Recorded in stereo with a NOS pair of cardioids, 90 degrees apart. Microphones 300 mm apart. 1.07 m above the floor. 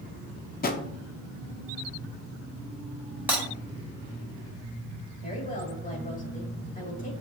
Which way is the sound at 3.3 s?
5° right.